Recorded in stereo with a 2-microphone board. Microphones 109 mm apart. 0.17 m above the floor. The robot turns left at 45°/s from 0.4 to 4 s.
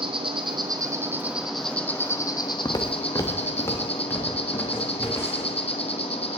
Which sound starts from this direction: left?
Footsteps, at 2.6 s.